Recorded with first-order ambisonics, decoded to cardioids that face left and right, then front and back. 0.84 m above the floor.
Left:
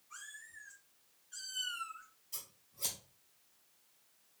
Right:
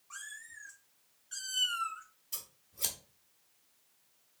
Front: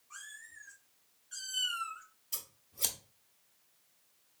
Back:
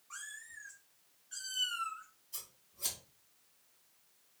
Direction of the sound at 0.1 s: 115° right.